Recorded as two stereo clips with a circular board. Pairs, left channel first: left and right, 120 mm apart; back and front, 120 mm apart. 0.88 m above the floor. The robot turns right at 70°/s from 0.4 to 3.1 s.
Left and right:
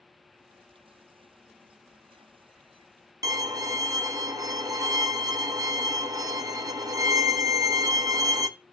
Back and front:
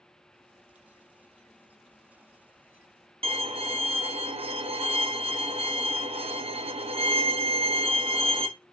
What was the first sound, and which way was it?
A violin, 30° right.